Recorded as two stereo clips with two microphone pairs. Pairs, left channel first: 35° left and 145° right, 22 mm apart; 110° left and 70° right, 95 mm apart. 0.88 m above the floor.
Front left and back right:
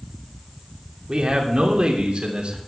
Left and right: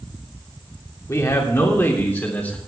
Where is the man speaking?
170° left, 3 m; by 2.6 s 175° right, 3.5 m.